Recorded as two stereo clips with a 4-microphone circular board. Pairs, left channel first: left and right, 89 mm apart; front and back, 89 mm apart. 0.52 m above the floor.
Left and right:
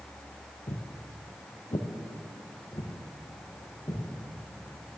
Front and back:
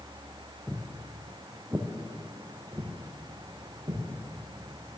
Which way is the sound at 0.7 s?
85° left.